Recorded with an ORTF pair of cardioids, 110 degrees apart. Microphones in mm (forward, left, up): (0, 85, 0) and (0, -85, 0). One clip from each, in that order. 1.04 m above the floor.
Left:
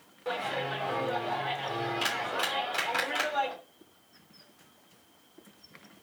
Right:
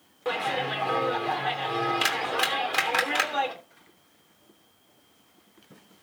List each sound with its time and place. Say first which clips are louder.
0.2 s a clap: right 5 dB; 45° right, 3 m